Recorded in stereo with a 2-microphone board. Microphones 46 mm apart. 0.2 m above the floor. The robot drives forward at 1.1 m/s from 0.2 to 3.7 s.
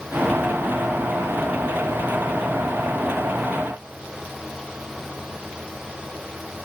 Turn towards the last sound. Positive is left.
No sound to turn to.